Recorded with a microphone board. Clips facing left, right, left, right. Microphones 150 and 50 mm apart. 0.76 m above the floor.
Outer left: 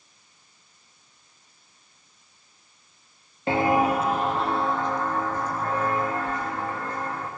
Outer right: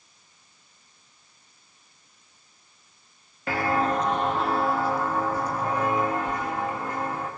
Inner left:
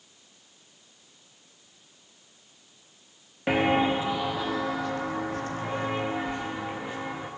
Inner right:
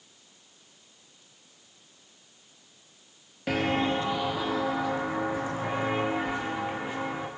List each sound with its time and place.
3.5 s footsteps: 25° left (ahead or behind), 0.8 m; by 7.3 s 15° right (ahead or behind), 4.5 m